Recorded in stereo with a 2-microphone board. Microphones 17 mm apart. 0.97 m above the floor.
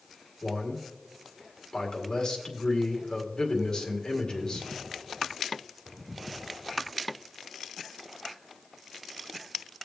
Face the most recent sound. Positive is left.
turn(degrees=40)  # may be behind; listen again after turning